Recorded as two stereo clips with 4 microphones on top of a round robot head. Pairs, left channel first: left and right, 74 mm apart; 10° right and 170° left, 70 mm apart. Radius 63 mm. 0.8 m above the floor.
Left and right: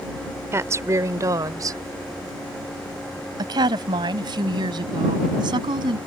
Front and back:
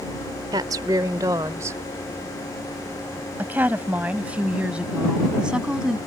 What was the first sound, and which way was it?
A woman speaking, 145° right.